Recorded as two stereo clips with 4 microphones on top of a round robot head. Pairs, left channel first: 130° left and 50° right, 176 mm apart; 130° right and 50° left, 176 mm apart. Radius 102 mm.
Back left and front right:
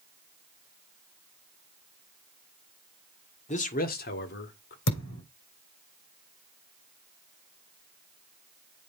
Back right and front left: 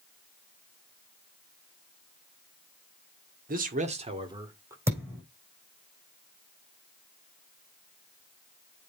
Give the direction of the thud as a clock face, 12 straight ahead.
8 o'clock.